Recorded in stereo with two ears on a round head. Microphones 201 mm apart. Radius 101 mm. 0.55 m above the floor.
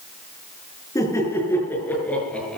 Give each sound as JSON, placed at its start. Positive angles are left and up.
{"t": 0.9, "sound": "laughter", "side_deg": 15, "distance_m": 7.0}